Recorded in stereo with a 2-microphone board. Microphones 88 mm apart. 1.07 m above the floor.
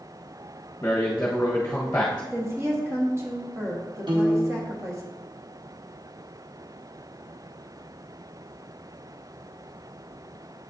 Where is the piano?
60° right (ahead or behind), 1.7 m.